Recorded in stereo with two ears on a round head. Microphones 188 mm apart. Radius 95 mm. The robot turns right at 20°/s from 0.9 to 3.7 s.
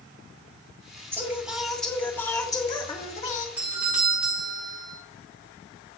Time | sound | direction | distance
1.1 | singing | 10° right | 1.8 m
3.6 | a doorbell | 10° right (ahead or behind) | 3.5 m